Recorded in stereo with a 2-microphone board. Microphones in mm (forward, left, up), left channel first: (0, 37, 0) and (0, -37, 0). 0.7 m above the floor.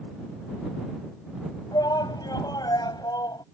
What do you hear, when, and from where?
1.7 s a shout: 65° left (ahead or behind)